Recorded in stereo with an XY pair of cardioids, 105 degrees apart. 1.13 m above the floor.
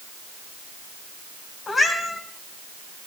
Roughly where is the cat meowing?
Ahead left.